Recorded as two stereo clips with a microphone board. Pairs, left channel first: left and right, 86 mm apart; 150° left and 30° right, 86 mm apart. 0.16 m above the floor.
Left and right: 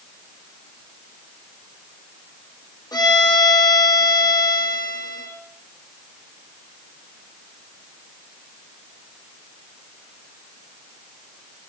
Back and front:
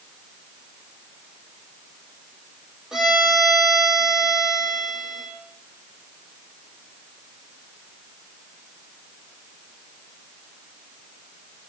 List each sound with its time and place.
2.9 s a violin: 55° left, 2.5 m